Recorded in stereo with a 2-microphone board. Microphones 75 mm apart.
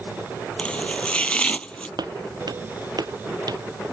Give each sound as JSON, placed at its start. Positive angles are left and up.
{"t": 0.6, "sound": "chopping", "side_deg": 15}
{"t": 2.0, "sound": "footsteps", "side_deg": -65}